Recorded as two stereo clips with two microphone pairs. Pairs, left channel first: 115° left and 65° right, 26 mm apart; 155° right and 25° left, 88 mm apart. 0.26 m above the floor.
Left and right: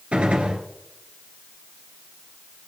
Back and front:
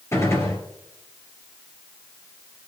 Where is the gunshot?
95° right, 2.5 m.